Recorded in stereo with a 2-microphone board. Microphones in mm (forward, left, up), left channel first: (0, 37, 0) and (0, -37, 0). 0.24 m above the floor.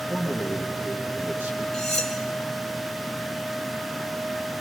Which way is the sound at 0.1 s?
30° right (ahead or behind).